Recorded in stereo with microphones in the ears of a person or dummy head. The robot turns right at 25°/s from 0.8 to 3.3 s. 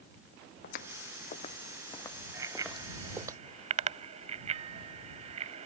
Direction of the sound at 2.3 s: 10° right (ahead or behind).